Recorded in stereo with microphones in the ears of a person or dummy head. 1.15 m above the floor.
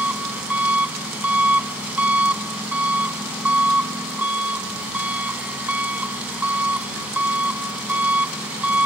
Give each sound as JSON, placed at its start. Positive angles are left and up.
{"t": 0.0, "sound": "an engine running", "side_deg": -5}